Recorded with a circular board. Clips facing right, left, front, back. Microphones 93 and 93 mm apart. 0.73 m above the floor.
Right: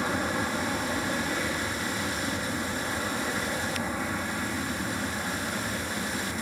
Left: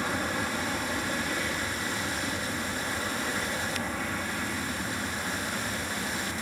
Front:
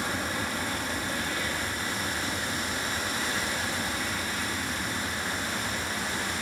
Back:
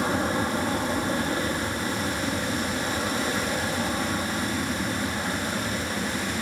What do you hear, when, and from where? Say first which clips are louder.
0.0 s an aircraft: right 2 dB, back 6 dB; 165° right